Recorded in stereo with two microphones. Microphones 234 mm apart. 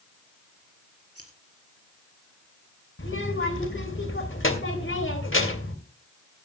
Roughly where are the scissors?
Left.